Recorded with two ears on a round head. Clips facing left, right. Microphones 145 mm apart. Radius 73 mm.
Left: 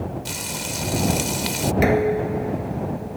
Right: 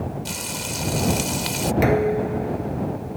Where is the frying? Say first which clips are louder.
Even; centre (ahead or behind).